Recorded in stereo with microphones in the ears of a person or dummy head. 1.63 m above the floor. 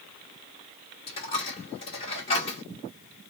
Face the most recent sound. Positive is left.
turn(degrees=35)  # may be behind; listen again after turning